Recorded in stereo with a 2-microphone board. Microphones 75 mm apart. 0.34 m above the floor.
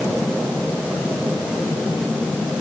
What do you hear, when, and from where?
Only background noise.